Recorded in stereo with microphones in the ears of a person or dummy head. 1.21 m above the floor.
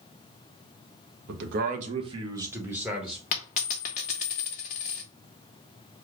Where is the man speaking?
60° right (ahead or behind), 0.8 m; by 3.2 s centre (ahead or behind), 1.6 m.